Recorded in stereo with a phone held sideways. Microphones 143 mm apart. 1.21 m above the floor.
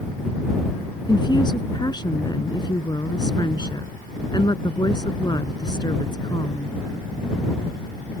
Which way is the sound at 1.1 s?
30° left (ahead or behind).